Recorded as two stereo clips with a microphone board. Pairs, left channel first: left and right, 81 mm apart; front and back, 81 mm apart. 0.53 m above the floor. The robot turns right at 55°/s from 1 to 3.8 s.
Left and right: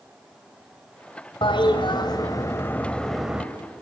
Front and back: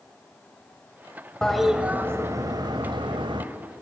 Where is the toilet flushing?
80° left, 1.5 m; by 3.5 s 165° right, 1.5 m.